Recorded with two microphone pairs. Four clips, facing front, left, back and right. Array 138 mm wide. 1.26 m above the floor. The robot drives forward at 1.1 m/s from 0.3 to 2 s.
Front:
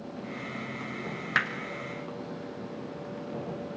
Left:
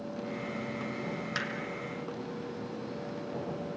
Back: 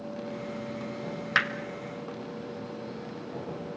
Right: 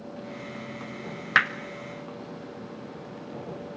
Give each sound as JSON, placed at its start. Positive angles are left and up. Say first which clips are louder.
{"t": 1.4, "sound": "hammering", "louder": "right 17 dB, back 2 dB", "azimuth_deg": -100, "distance_m": 1.1}